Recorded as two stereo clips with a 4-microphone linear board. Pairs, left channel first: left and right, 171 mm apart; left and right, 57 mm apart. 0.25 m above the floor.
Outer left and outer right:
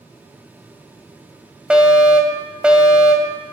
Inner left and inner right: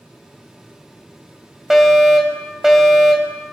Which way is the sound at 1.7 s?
5° right (ahead or behind).